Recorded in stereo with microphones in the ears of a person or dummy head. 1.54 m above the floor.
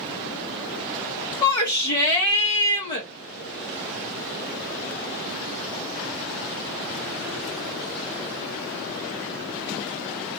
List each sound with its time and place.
1.4 s a shout: 20° left (ahead or behind), 0.8 m